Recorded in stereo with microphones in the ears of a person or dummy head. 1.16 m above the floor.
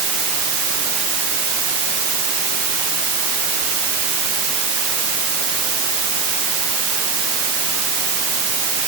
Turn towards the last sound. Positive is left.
No sound to turn to.